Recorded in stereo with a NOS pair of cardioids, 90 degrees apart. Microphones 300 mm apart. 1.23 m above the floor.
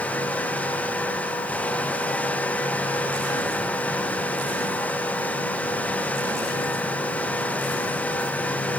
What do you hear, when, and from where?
0.0 s a fan: 5° left, 1.2 m